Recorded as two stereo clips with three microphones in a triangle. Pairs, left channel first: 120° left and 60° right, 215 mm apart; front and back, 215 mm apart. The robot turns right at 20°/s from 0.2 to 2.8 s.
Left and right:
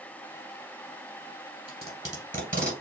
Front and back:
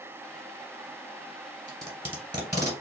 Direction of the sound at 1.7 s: 125° right.